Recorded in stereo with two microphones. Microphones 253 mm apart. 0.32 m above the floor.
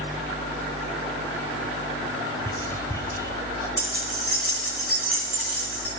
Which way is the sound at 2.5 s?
10° left (ahead or behind).